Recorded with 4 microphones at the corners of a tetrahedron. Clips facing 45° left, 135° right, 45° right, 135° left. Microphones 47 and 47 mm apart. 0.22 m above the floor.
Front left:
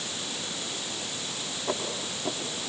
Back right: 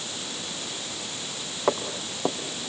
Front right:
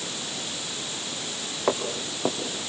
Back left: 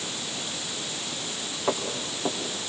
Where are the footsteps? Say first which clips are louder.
Back right 6 dB, front right 2 dB; 110° right, 3.5 m.